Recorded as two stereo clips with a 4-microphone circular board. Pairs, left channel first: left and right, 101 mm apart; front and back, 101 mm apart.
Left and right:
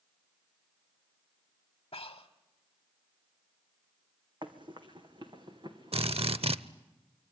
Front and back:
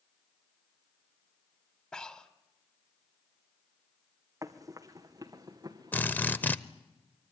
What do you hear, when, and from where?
1.9 s breathing: 80° left, 1.2 m
4.4 s running footsteps: 125° right, 2.0 m; by 6.5 s 130° right, 3.5 m
5.9 s a drill: 70° right, 0.7 m